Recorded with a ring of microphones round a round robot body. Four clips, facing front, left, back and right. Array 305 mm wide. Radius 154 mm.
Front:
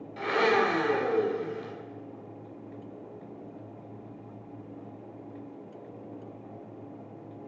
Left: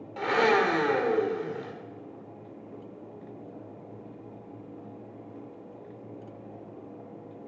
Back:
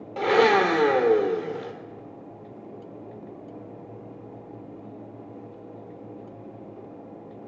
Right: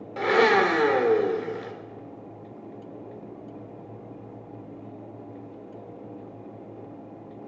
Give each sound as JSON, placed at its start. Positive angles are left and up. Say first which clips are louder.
{"t": 0.2, "sound": "a blender", "louder": "right 4 dB, back 6 dB", "azimuth_deg": -150, "distance_m": 2.0}